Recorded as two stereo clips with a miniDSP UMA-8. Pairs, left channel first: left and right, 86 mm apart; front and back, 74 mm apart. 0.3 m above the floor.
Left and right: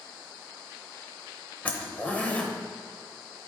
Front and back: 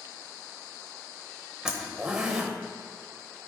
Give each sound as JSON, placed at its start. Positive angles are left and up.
{"t": 1.6, "sound": "a zipper", "azimuth_deg": 120, "distance_m": 0.9}